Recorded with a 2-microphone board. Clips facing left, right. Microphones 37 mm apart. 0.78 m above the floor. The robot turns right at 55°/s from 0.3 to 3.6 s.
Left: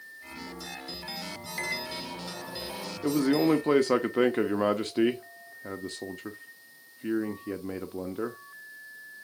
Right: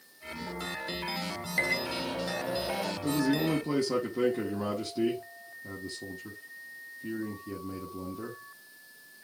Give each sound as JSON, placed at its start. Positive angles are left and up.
{"t": 1.6, "sound": "a microwave", "azimuth_deg": -140, "distance_m": 2.5}
{"t": 3.0, "sound": "a man speaking", "azimuth_deg": 60, "distance_m": 0.8}